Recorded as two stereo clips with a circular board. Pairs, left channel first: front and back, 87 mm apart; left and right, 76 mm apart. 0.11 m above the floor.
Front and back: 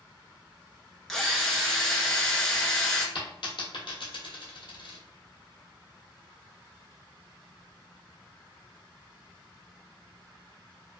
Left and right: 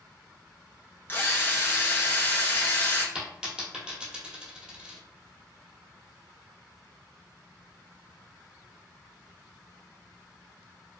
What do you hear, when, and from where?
1.1 s a drill: 80° left, 0.7 m
3.1 s a dropped coin: 10° right, 1.3 m